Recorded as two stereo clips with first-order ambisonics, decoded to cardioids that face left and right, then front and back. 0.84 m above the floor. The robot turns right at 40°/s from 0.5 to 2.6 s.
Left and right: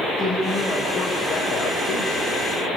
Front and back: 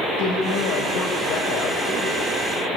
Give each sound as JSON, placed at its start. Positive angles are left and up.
{"t": 0.2, "sound": "a woman speaking", "azimuth_deg": -5, "distance_m": 4.0}